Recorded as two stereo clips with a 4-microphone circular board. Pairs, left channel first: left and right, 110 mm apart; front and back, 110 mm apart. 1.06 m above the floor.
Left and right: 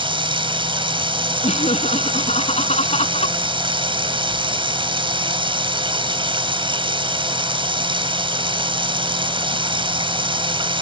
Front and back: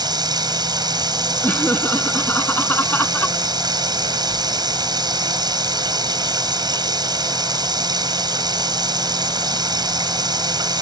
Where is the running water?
130° right.